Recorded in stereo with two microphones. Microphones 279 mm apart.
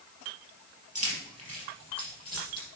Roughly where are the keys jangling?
Right.